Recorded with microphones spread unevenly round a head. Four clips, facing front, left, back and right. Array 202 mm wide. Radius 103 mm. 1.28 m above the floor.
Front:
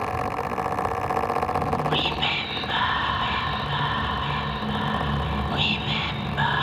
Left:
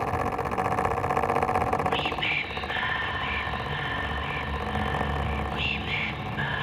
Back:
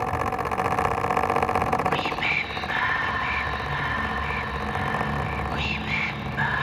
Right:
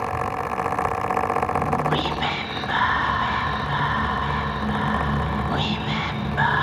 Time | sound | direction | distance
1.5 | whispering | 75° right | 1.2 m